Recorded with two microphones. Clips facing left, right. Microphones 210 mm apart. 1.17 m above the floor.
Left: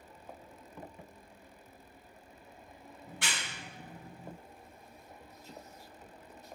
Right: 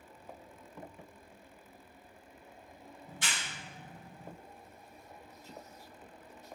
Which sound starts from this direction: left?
A clap, at 3.1 s.